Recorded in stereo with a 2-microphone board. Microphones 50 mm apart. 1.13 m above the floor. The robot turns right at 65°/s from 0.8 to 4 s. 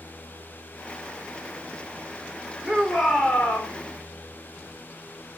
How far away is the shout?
About 4 m.